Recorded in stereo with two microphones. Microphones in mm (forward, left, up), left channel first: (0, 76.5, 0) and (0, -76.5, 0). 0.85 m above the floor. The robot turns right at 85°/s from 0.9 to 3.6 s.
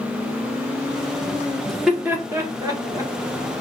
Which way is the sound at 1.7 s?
Centre (ahead or behind).